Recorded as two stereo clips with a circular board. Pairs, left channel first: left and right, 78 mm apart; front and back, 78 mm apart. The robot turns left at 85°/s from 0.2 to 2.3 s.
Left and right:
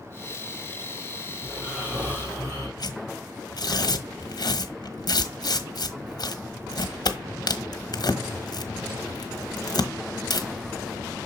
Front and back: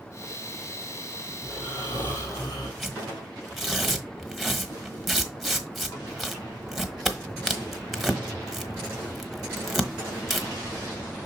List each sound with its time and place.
1.4 s snoring: 40° left, 5 m; by 2.7 s 35° right, 5 m
2.8 s tearing paper: 90° left, 1.1 m